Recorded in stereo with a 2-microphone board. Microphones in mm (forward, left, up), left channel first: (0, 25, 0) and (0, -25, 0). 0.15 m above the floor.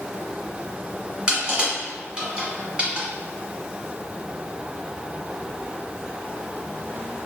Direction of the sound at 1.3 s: 20° right (ahead or behind).